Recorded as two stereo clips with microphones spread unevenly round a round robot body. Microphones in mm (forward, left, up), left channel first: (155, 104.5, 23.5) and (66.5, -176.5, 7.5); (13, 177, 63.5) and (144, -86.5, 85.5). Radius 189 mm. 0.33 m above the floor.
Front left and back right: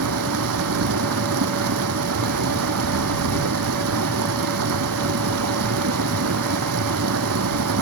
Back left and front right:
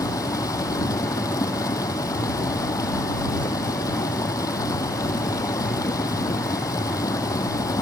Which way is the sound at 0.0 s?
165° right.